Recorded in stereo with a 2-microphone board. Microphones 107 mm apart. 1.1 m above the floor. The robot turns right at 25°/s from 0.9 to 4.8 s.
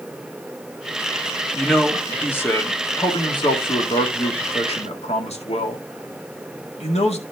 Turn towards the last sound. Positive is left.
turn(degrees=85)